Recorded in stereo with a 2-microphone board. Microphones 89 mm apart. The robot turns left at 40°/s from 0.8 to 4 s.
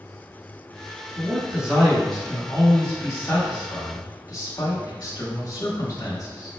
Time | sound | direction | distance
1.2 | a man speaking | 150° right | 1.3 m